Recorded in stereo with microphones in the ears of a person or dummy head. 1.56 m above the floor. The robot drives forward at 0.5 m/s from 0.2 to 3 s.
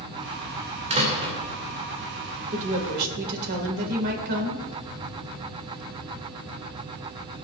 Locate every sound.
0.9 s a door slam: 25° right (ahead or behind), 2.5 m
2.5 s a woman speaking: 50° right (ahead or behind), 2 m; by 4.6 s 55° right (ahead or behind), 1.9 m